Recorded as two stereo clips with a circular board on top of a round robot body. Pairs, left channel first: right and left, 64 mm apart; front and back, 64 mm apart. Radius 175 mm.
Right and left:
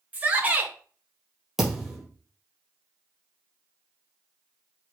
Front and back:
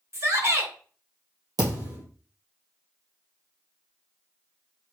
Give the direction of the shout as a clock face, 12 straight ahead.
7 o'clock.